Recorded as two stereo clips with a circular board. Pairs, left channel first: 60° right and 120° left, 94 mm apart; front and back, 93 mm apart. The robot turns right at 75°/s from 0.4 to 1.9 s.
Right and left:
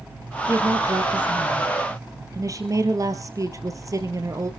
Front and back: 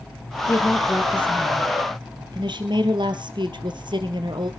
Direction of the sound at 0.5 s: 60° left.